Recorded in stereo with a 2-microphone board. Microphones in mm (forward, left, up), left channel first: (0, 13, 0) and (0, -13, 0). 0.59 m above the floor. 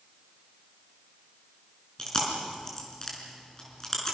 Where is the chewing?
25° left (ahead or behind), 6 m.